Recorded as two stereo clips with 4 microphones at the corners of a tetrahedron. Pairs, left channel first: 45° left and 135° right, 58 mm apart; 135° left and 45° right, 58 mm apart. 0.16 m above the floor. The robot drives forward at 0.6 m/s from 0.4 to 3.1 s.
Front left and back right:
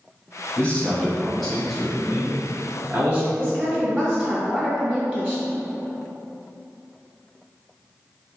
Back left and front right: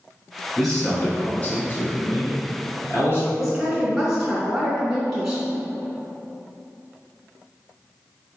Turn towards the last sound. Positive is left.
turn(degrees=-125)